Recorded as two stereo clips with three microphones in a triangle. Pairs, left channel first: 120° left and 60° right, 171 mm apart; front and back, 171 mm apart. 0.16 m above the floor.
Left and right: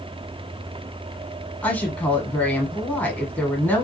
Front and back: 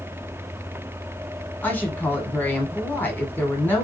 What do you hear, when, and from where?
1.6 s a woman speaking: 55° left, 1.0 m